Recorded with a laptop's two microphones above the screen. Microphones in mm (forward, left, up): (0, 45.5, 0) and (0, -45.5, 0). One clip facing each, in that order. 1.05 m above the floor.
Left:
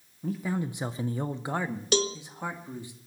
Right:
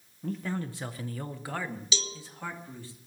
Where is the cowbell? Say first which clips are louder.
Left 11 dB; 60° left (ahead or behind), 1.0 m.